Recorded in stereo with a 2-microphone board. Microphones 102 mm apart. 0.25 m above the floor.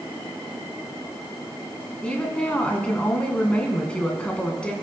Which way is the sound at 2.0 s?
10° left (ahead or behind).